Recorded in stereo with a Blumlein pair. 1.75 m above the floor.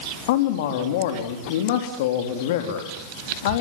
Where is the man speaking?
50° left, 3.5 m.